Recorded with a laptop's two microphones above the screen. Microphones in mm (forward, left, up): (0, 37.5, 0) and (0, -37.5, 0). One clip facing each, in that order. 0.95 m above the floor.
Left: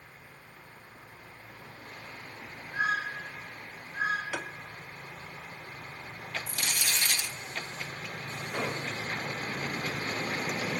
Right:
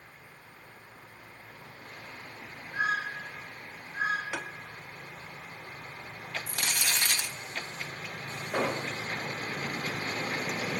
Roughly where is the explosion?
Right.